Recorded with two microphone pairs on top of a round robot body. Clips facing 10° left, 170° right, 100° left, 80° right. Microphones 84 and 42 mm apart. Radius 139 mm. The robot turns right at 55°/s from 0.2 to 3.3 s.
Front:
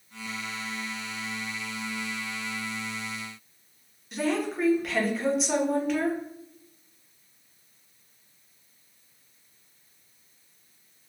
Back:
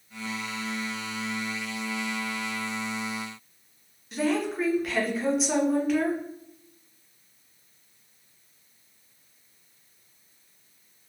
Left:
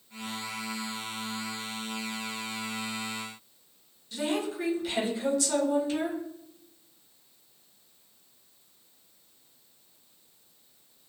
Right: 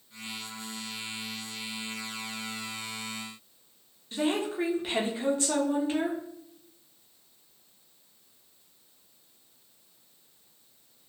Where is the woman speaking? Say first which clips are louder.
Back 1 dB, right 2 dB; 75° right, 0.9 m.